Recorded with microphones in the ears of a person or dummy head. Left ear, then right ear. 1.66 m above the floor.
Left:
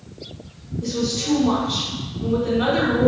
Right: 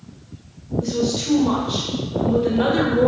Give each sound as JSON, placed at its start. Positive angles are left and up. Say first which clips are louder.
{"t": 0.8, "sound": "a woman speaking", "louder": "right 1 dB", "side_deg": -15, "distance_m": 0.5}